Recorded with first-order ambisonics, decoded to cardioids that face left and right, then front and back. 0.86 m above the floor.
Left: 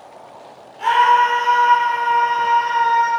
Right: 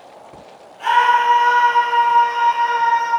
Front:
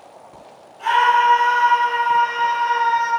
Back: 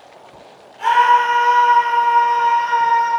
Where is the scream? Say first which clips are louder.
Left 1 dB, back 2 dB; 145° left, 2.5 m.